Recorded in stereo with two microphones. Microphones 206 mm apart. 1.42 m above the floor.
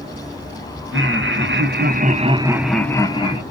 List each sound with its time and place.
0.9 s laughter: 75° right (ahead or behind), 0.9 m; by 3.4 s 30° left (ahead or behind), 0.7 m